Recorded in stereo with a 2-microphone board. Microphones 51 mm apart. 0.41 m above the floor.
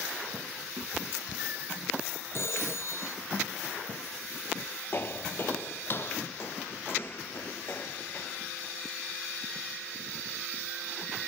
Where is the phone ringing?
55° left (ahead or behind).